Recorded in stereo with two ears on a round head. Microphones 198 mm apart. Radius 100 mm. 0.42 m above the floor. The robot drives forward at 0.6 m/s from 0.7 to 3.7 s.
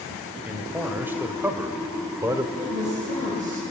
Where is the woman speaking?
30° right (ahead or behind), 8.5 m; by 3.6 s 35° right (ahead or behind), 8 m.